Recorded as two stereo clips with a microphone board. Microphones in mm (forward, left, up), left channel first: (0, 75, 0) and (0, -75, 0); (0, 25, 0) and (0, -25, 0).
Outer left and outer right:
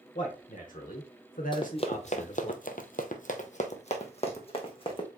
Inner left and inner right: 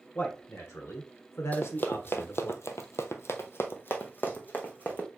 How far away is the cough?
No cough in this recording.